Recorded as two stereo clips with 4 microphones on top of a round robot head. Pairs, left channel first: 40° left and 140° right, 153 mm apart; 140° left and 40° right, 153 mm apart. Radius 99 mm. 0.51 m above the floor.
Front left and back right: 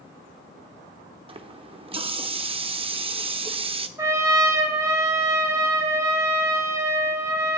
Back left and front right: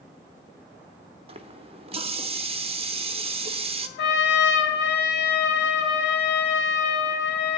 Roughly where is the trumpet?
Behind left.